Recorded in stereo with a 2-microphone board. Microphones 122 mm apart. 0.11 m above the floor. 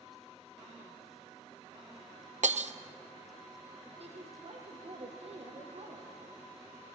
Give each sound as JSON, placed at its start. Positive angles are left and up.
{"t": 2.4, "sound": "breaking glass", "side_deg": -75, "distance_m": 0.7}
{"t": 4.0, "sound": "a woman speaking", "side_deg": -60, "distance_m": 4.0}